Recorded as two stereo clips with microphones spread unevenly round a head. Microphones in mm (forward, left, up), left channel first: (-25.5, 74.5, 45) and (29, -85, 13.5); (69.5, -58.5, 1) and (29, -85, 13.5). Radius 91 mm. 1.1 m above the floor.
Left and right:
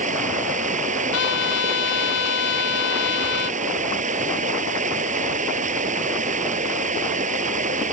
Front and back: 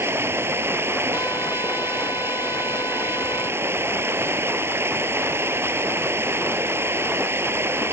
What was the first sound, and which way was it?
Running water, 115° right.